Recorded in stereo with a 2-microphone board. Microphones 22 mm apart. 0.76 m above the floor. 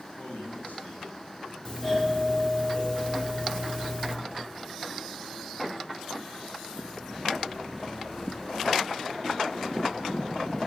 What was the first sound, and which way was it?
A man speaking, 75° left (ahead or behind).